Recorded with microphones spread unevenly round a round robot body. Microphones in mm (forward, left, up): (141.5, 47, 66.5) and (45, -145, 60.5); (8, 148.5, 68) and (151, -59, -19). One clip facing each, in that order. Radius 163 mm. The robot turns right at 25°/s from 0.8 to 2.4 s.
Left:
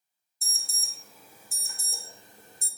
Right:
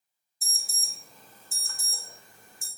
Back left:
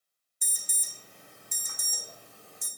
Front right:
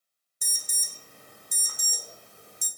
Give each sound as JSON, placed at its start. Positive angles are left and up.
{"t": 0.4, "sound": "an alarm", "azimuth_deg": -30, "distance_m": 2.0}